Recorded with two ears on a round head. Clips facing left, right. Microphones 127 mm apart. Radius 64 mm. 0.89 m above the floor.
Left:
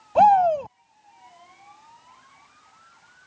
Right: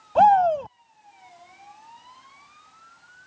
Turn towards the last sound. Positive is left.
turn(degrees=5)  # may be behind; listen again after turning